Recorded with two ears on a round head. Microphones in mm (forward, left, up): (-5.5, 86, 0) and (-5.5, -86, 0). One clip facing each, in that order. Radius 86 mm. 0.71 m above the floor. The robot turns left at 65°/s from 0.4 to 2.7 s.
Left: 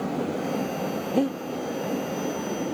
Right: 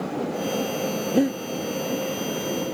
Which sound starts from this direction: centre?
Breathing, at 1.1 s.